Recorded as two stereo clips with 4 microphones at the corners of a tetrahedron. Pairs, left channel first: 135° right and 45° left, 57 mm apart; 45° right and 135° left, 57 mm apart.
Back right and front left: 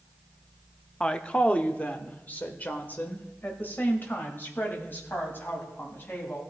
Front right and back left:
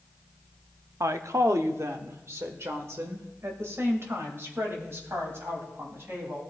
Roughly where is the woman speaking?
Behind left.